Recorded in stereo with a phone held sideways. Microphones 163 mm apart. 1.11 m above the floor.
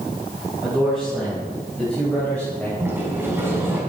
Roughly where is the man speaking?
Centre.